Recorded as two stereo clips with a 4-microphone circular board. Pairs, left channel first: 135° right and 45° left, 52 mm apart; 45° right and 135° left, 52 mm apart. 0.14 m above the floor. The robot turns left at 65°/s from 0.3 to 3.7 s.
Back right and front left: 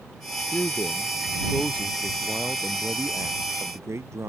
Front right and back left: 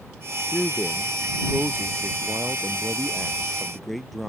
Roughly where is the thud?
I don't hear a thud.